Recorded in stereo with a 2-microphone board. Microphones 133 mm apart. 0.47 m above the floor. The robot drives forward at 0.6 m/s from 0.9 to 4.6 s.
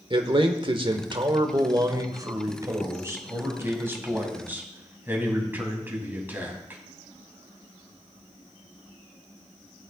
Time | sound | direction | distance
0.1 | a man speaking | 40° right (ahead or behind) | 1.1 m